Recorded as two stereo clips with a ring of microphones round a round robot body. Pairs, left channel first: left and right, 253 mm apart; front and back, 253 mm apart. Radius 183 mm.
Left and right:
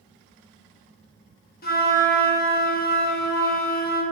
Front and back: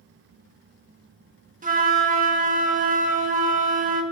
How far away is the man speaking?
No man speaking in this recording.